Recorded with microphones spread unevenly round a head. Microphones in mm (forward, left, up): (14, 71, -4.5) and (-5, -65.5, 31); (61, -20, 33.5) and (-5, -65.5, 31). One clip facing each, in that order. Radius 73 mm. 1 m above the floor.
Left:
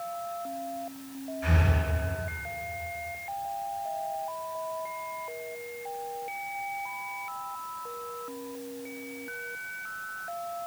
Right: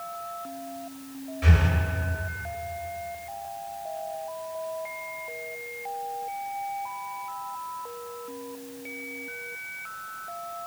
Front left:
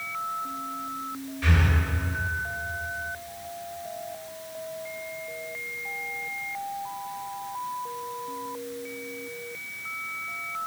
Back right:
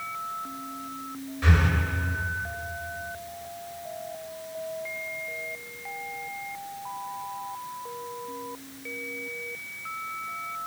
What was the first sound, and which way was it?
Breathing, 80° right.